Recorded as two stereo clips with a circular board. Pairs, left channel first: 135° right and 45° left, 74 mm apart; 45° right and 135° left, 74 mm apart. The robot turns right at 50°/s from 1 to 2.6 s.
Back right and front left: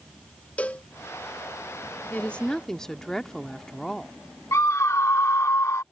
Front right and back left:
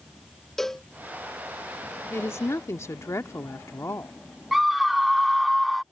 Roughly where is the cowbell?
Behind right.